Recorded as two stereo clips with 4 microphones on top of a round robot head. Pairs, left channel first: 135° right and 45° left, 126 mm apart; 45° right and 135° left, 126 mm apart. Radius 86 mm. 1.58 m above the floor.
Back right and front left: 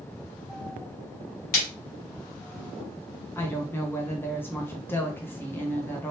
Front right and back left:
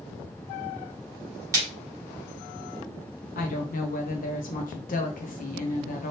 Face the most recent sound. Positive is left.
turn(degrees=-60)